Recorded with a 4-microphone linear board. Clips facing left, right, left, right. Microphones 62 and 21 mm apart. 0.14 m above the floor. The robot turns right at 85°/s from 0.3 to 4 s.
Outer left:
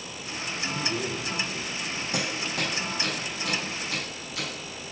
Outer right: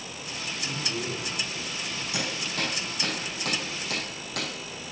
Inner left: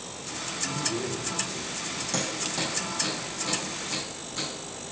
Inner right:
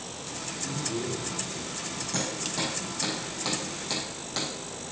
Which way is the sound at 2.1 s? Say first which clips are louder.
Outer left 2 dB, inner left 1 dB; 45° left (ahead or behind).